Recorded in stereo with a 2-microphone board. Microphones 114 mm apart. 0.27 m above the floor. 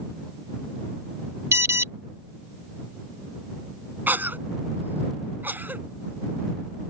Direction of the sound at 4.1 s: 20° right (ahead or behind).